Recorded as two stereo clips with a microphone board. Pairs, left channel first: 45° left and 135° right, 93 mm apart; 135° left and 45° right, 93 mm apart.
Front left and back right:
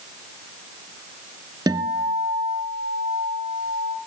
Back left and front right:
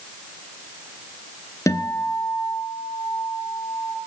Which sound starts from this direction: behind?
A guitar, at 1.7 s.